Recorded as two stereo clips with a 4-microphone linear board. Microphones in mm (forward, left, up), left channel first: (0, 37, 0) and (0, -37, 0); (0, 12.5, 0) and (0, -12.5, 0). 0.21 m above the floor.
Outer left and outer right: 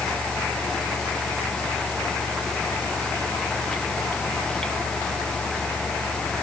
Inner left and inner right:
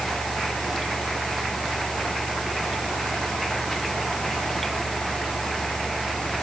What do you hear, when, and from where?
Only background noise.